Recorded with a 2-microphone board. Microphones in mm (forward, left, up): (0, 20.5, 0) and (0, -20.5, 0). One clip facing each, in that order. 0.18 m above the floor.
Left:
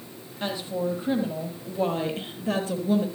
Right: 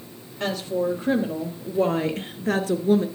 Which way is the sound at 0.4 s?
70° right (ahead or behind).